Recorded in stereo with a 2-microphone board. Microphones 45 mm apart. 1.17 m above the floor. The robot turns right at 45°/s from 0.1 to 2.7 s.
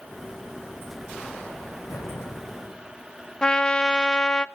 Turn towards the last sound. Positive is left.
turn(degrees=15)  # may be behind; listen again after turning